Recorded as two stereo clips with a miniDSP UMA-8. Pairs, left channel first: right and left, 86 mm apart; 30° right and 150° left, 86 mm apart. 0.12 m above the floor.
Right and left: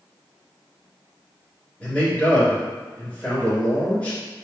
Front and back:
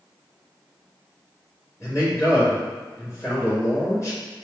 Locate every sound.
1.8 s a man speaking: 30° right, 1.9 m